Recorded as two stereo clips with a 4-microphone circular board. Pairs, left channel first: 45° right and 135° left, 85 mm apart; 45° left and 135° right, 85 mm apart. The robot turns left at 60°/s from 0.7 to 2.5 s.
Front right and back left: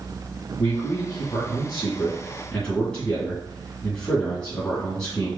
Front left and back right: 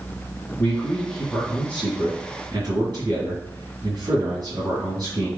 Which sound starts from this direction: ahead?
A man speaking, at 0.6 s.